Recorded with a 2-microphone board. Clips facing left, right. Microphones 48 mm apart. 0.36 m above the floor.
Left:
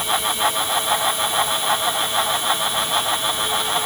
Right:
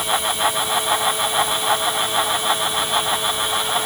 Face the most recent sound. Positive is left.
No sound to turn to.